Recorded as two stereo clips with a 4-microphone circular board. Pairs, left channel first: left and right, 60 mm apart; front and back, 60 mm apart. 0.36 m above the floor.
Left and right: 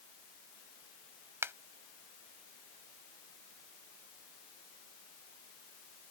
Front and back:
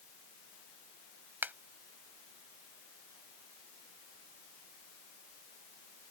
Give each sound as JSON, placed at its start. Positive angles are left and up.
{"t": 1.4, "sound": "a finger snap", "azimuth_deg": -125}